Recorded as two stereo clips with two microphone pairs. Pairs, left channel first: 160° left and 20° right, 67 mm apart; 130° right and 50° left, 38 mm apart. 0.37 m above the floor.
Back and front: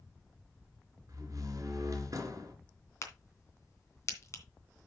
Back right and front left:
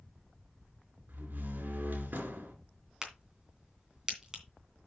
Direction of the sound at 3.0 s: 120° left.